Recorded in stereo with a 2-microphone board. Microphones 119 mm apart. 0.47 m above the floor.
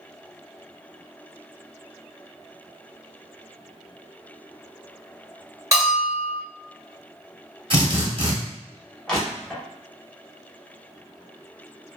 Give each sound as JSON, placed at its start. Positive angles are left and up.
{"t": 5.7, "sound": "a bell", "side_deg": -25, "distance_m": 1.5}
{"t": 7.7, "sound": "a drill", "side_deg": -50, "distance_m": 1.0}
{"t": 9.1, "sound": "crushing", "side_deg": 5, "distance_m": 0.9}